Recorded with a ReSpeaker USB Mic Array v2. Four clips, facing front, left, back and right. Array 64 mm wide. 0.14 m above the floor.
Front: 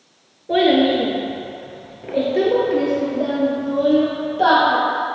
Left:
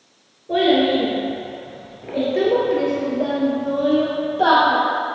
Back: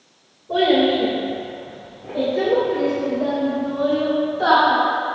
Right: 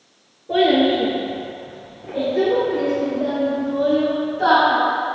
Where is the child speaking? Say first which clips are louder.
Right 1 dB, front 2 dB; 5° right, 1.9 m; by 4.8 s 50° left, 3 m.